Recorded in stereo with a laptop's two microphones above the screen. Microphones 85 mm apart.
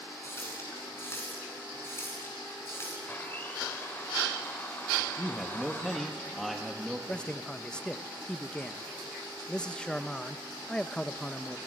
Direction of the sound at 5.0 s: Centre (ahead or behind).